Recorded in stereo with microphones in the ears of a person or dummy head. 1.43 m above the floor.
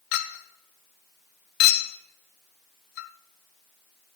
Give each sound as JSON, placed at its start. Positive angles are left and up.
{"t": 0.1, "sound": "a clink", "side_deg": 60, "distance_m": 0.6}